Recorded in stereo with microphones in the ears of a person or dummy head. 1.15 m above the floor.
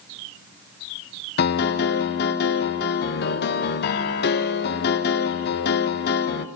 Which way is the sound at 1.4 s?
55° left (ahead or behind).